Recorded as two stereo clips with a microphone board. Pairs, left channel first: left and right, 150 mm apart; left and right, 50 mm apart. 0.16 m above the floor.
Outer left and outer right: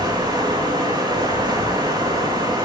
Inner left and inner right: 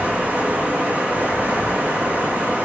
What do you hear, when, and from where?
0.0 s running water: 25° right (ahead or behind), 1.4 m